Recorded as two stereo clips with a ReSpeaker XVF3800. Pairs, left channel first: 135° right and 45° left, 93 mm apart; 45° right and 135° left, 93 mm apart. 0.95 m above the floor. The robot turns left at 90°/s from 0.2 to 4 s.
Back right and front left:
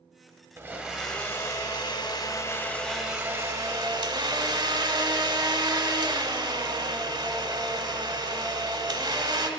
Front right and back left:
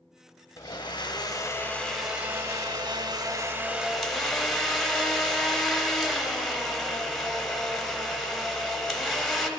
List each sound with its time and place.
0.6 s a blender: 5° right, 0.9 m; by 9.5 s 45° left, 0.9 m